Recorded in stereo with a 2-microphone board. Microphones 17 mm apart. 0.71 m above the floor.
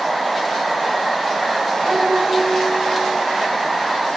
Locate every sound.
1.9 s a piano: 40° right (ahead or behind), 1.2 m